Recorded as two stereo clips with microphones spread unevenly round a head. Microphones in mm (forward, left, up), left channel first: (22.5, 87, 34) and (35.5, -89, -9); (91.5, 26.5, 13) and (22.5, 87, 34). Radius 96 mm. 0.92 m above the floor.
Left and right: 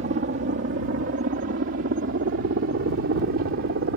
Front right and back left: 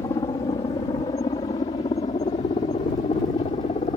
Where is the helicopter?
85° right; by 4.0 s 75° right.